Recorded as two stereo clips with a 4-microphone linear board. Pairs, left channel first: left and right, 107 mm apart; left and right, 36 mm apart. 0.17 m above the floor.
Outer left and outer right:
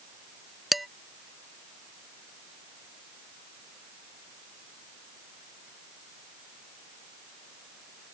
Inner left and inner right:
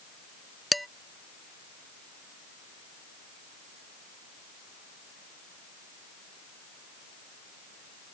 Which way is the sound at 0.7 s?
Centre (ahead or behind).